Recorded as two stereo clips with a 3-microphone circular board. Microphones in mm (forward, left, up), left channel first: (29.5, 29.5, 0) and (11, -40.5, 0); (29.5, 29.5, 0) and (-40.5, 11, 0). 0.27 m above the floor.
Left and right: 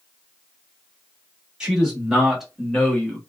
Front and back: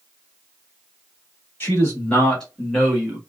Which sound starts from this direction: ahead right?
A man speaking, at 1.6 s.